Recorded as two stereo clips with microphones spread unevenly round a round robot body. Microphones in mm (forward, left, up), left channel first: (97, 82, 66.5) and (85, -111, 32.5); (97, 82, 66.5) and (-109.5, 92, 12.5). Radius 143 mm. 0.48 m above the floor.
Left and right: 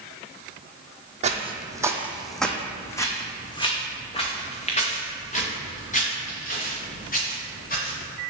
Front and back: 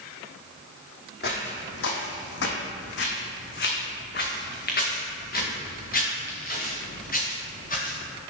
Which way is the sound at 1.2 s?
35° right.